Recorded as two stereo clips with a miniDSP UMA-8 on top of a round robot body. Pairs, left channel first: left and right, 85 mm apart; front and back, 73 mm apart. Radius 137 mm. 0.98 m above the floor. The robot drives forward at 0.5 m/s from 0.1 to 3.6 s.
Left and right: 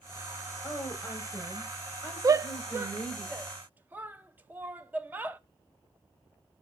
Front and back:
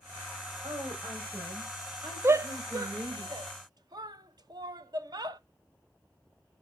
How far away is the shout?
About 0.6 m.